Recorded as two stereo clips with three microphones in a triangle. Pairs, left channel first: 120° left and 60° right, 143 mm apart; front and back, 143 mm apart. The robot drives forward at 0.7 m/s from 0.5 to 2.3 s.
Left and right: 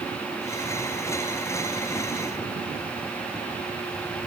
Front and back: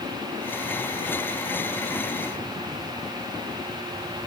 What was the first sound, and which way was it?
Only background noise.